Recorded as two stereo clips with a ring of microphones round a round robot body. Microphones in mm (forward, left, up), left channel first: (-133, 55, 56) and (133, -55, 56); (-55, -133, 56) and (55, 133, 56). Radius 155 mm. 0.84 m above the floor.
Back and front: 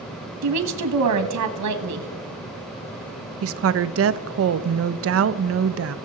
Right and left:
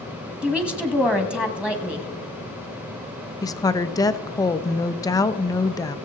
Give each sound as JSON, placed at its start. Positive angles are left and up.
{"t": 0.4, "sound": "a woman speaking", "azimuth_deg": -20, "distance_m": 1.6}
{"t": 3.4, "sound": "a woman speaking", "azimuth_deg": -40, "distance_m": 0.6}